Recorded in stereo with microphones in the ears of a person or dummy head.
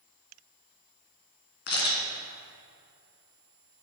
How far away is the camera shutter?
About 2.5 m.